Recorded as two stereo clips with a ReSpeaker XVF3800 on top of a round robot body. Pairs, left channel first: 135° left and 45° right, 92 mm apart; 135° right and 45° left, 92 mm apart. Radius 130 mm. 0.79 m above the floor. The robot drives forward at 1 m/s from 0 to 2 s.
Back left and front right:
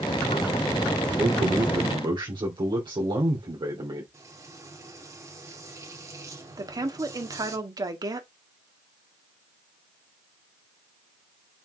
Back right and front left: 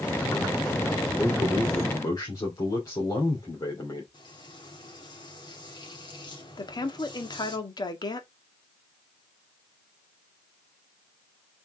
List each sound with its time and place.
1.2 s a man speaking: 70° right, 3 m; by 4.0 s 85° right, 3 m
4.1 s frying: 100° right, 3.5 m
6.6 s a woman speaking: 95° right, 1.8 m